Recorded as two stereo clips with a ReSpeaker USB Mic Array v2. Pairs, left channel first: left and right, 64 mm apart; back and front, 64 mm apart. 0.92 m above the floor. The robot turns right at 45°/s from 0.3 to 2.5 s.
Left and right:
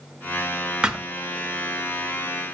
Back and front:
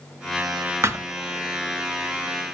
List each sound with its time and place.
0.8 s a thud: 15° right, 0.7 m; by 1.1 s 5° right, 0.7 m